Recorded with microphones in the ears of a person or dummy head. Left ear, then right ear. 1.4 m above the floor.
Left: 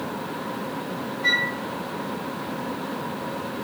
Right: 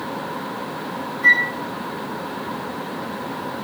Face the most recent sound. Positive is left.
turn(degrees=-40)  # may be behind; listen again after turning